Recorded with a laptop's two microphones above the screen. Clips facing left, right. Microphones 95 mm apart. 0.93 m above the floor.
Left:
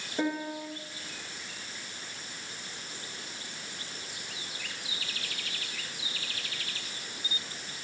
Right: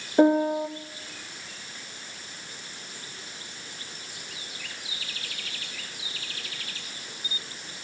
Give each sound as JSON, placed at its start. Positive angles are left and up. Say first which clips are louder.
{"t": 0.2, "sound": "a piano", "louder": "right 12 dB", "side_deg": -45, "distance_m": 0.7}